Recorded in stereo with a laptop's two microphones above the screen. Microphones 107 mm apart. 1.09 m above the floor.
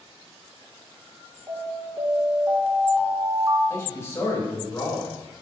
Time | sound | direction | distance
1.5 | an alarm | 20° right (ahead or behind) | 3 m
3.7 | a man speaking | 25° left (ahead or behind) | 4 m